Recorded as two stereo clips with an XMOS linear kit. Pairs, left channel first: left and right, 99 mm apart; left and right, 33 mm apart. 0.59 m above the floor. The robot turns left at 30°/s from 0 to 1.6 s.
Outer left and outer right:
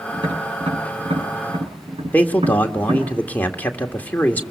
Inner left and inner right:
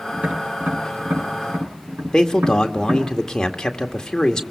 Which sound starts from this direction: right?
Tapping, at 0.1 s.